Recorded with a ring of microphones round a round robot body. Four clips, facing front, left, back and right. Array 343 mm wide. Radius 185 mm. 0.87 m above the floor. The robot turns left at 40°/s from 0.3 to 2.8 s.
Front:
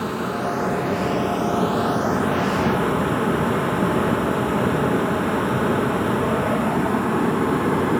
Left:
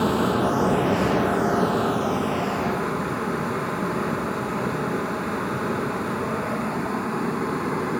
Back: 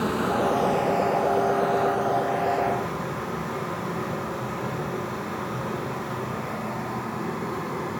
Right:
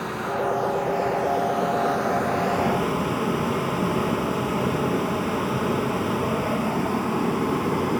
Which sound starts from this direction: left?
Running water, at 0.0 s.